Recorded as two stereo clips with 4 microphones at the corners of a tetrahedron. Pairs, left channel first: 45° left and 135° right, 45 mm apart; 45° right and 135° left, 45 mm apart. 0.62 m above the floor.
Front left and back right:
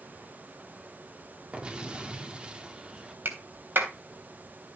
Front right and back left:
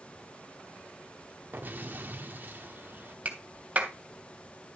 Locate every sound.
1.5 s an explosion: 160° left, 1.6 m
3.2 s a clap: 170° right, 3 m